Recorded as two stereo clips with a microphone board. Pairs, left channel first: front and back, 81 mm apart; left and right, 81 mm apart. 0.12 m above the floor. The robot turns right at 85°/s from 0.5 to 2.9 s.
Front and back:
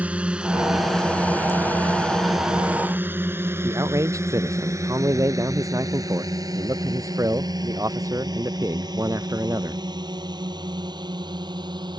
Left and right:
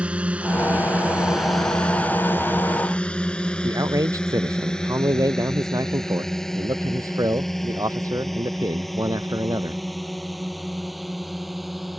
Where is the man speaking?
130° right.